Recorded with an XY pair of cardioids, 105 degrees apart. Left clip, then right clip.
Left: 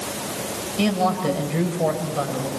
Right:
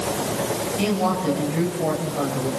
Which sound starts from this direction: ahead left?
A woman speaking, at 0.8 s.